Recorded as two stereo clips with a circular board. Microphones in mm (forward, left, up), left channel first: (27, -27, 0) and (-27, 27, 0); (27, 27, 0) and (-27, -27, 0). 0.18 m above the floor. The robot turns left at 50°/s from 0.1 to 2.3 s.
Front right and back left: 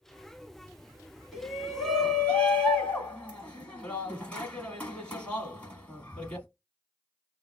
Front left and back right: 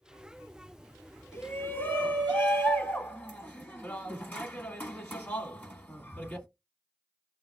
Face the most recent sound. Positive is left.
turn(degrees=10)